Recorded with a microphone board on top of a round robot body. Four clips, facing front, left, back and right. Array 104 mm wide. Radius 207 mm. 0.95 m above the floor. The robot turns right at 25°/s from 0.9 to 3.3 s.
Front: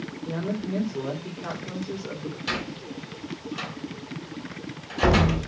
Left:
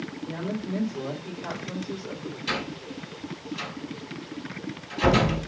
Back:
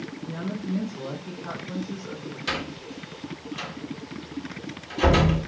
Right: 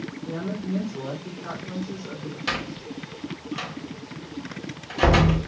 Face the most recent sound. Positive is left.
turn(degrees=-80)